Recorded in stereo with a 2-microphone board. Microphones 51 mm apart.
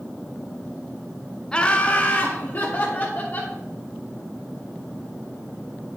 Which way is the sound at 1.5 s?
20° left (ahead or behind).